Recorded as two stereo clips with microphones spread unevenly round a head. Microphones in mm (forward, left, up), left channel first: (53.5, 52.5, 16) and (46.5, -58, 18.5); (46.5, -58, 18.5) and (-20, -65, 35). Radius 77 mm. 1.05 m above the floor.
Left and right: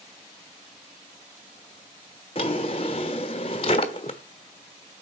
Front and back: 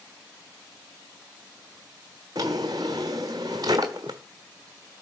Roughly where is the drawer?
Behind left.